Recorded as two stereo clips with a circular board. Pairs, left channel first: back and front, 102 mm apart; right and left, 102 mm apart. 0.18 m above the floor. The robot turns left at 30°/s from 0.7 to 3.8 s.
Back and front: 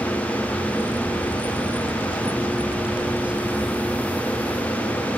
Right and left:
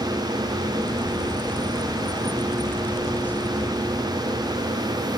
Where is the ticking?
No ticking in this recording.